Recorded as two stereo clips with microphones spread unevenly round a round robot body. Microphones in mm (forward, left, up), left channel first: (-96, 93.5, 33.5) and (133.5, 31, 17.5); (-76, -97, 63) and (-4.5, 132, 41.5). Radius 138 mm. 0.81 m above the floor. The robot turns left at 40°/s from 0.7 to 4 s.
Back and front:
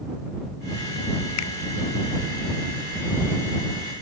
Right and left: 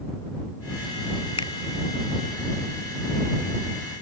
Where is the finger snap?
175° right; by 1.5 s straight behind.